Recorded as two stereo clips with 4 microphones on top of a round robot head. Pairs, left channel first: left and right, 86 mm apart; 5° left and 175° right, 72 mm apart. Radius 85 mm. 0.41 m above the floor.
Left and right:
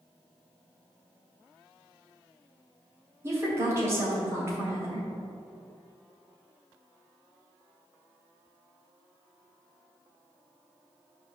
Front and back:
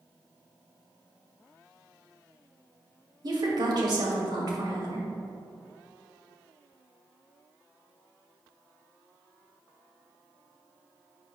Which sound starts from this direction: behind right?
A woman speaking, at 3.2 s.